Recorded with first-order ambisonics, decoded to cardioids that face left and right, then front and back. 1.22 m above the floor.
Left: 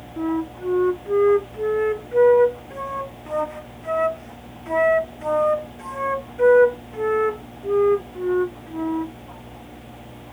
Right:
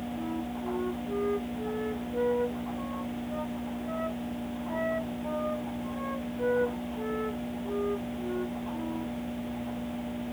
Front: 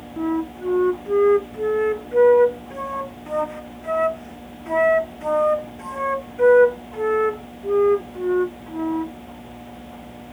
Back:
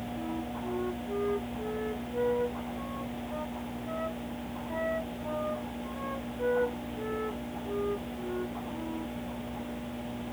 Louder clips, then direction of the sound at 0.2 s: Left 14 dB, front 15 dB; 45° left.